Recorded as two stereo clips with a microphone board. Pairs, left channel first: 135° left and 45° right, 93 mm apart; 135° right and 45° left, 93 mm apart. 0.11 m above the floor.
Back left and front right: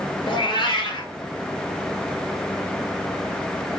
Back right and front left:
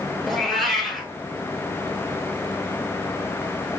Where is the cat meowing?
140° left, 0.7 m.